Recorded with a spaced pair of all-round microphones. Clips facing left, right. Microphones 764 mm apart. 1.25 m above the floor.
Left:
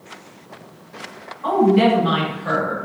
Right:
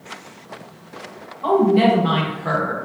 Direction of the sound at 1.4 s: 60° right (ahead or behind).